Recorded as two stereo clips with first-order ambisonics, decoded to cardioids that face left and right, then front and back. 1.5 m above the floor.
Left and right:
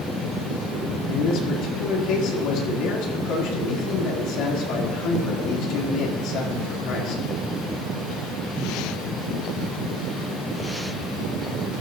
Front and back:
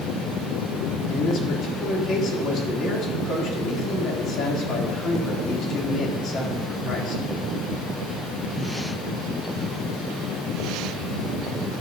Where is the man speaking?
55° left, 3 m.